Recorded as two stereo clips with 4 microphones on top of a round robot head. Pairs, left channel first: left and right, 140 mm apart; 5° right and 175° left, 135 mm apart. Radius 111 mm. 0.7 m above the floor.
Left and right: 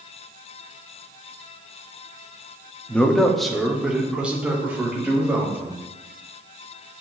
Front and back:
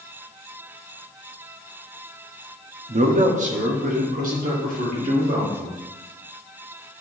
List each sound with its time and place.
2.9 s a man speaking: 165° left, 1.3 m; by 5.8 s 165° right, 4 m